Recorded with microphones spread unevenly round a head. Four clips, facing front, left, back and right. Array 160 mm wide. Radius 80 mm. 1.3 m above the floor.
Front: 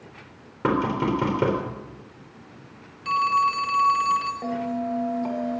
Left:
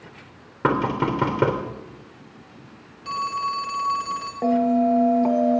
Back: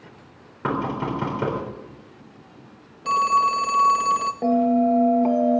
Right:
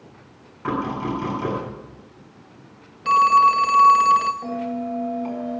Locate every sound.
0.6 s knocking: 65° left, 3.5 m
3.0 s a phone ringing: 140° right, 0.7 m
4.4 s a bell: 135° left, 1.3 m